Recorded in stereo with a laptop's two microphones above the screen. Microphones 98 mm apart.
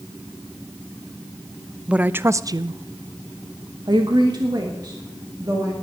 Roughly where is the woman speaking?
Centre.